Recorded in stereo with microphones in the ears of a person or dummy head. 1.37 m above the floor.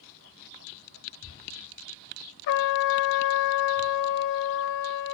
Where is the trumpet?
60° left (ahead or behind), 0.9 m.